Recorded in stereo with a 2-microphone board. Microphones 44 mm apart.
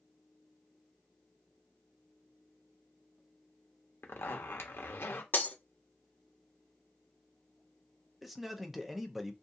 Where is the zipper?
65° left (ahead or behind), 0.6 m.